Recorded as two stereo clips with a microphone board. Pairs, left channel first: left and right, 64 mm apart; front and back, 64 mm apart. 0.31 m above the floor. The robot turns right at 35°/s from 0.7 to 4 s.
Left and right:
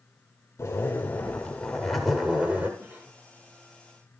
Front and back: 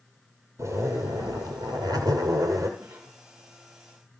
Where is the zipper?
145° left, 2.5 m; by 2.7 s 145° right, 2.5 m.